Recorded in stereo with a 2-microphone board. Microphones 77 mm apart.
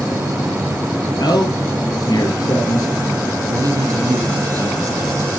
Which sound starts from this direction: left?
A man speaking, at 1.2 s.